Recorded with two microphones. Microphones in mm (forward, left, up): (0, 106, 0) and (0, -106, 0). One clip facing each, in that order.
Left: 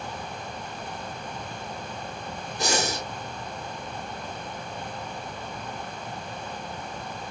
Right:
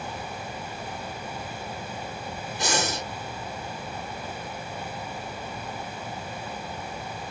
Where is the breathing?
40° left (ahead or behind), 1.9 m.